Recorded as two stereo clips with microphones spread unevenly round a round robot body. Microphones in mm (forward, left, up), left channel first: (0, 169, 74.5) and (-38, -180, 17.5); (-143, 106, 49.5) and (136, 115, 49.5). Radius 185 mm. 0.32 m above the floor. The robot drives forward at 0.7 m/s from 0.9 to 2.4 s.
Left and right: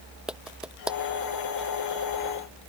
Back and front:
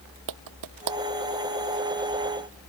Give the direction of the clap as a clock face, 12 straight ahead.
12 o'clock.